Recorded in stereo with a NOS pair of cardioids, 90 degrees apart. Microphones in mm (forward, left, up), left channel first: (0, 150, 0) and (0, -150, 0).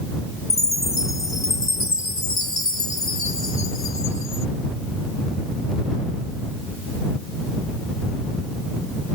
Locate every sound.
0.5 s a chime: 40° left